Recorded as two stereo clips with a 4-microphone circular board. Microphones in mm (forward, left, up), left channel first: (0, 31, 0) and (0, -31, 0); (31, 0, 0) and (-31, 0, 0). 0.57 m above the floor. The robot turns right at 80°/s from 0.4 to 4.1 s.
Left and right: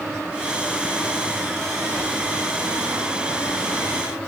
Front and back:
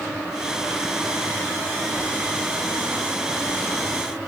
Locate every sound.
Only background noise.